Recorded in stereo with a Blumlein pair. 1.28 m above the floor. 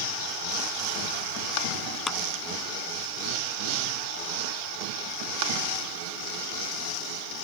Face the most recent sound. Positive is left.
turn(degrees=20)